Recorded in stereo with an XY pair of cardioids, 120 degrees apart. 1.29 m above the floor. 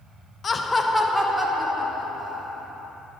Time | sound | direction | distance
0.4 | laughter | 30° left | 0.8 m